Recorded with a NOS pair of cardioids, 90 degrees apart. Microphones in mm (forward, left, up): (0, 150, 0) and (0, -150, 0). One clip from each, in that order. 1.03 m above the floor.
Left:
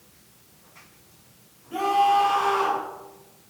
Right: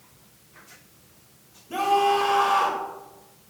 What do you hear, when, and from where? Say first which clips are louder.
1.7 s a scream: left 1 dB; 50° right, 4 m